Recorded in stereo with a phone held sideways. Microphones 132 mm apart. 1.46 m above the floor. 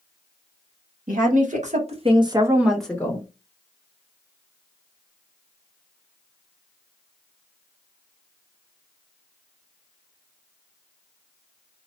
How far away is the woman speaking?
About 1.3 m.